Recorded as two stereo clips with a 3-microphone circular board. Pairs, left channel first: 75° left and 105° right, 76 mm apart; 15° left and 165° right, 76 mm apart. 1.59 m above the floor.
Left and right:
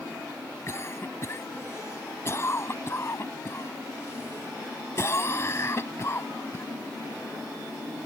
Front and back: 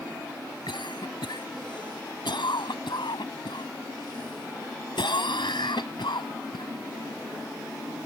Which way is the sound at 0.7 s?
20° left.